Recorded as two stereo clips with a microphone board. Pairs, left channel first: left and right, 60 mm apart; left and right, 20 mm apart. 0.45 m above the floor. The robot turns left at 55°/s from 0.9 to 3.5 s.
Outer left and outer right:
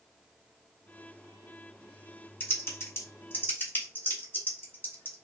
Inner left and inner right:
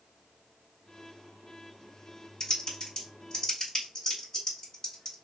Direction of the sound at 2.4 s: 35° left (ahead or behind).